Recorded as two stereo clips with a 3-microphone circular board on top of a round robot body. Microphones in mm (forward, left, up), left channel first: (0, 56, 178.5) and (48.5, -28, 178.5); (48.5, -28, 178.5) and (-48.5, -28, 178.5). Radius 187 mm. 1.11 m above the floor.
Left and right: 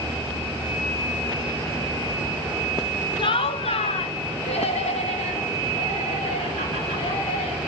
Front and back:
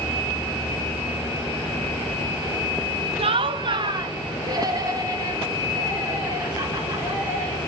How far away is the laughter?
About 0.8 m.